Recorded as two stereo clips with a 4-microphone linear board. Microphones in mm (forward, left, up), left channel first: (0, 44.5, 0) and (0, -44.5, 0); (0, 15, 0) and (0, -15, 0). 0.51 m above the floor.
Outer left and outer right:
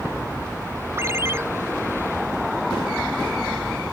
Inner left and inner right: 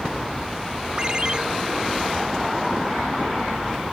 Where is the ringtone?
30° right (ahead or behind).